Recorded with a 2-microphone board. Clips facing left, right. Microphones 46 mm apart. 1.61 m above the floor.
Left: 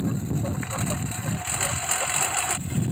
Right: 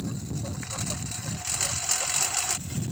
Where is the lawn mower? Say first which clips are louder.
Left 6 dB; 25° left (ahead or behind); by 2.9 s 20° left (ahead or behind).